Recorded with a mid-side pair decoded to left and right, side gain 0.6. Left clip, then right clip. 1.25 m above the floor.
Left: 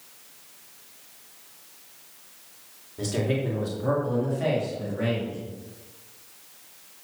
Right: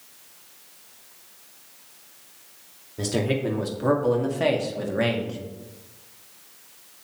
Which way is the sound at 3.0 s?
25° right.